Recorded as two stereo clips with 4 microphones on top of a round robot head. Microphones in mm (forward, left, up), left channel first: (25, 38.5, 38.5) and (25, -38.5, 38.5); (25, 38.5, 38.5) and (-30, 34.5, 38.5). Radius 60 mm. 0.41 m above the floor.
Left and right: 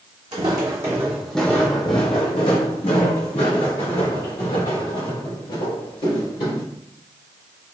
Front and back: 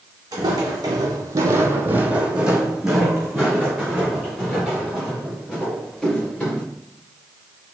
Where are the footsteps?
140° right, 0.9 m; by 6.6 s 80° left, 3 m.